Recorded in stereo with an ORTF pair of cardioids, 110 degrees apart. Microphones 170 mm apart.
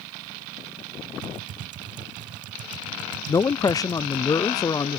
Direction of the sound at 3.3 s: 25° left.